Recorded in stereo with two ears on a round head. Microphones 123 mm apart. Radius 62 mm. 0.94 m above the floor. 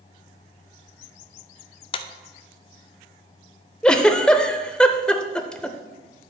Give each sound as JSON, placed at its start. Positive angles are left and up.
{"t": 1.9, "sound": "a clap", "side_deg": 40, "distance_m": 0.6}
{"t": 3.8, "sound": "a giggle", "side_deg": 5, "distance_m": 0.6}